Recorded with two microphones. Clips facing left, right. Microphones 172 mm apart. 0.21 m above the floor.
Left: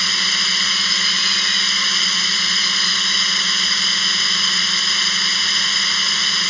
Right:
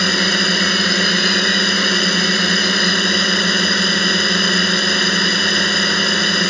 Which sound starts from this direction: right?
A drone, at 0.0 s.